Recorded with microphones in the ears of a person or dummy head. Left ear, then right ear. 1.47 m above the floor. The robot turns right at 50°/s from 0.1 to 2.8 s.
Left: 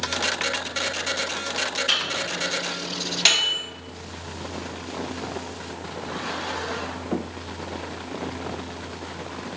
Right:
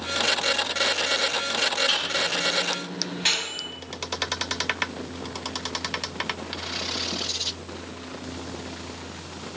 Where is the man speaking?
No man speaking in this recording.